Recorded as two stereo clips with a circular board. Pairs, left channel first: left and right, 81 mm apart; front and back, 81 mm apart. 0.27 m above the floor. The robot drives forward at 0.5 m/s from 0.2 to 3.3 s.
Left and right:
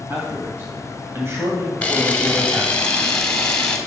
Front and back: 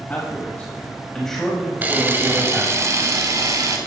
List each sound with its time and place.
0.1 s a man speaking: 50° right, 1.8 m; by 2.8 s 125° right, 1.7 m
1.8 s a camera shutter: 145° left, 1.2 m; by 3.8 s 165° left, 1.7 m